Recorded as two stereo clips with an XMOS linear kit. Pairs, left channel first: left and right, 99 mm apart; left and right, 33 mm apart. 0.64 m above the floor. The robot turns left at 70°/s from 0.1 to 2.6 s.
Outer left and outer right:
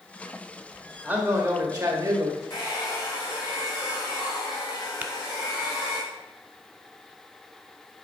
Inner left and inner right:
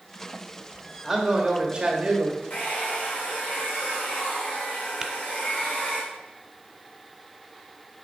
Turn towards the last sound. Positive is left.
turn(degrees=-15)  # may be behind; listen again after turning